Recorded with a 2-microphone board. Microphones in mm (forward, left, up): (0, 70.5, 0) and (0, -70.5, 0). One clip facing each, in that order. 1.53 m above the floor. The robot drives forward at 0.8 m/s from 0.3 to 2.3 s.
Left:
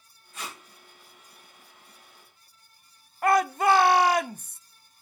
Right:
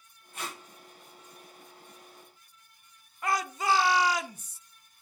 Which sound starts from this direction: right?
Tape being pulled, at 0.3 s.